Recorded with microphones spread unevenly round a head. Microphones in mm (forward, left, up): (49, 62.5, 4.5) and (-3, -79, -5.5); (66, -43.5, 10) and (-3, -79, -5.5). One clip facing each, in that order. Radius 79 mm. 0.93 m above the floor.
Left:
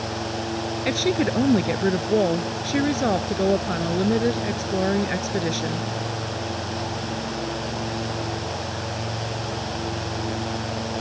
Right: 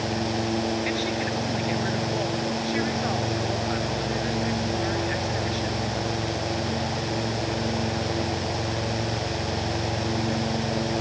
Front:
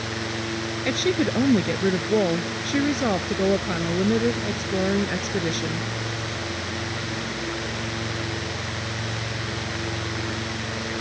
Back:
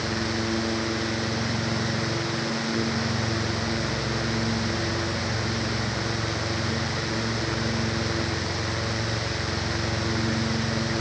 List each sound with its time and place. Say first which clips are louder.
0.8 s a woman speaking: left 5 dB, front 5 dB; 40° left